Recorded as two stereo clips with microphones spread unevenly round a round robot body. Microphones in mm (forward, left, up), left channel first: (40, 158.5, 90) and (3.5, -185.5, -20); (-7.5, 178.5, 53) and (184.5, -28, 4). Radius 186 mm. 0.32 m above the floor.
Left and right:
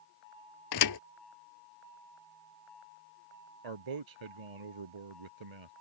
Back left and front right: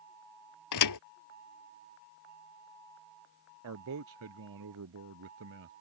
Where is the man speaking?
95° right.